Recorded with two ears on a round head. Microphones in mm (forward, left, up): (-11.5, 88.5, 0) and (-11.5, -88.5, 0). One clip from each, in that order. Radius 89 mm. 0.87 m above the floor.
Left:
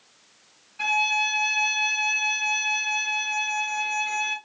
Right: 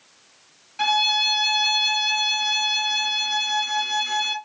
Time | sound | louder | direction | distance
0.8 | a violin | right 3 dB | 55° right (ahead or behind) | 1.5 m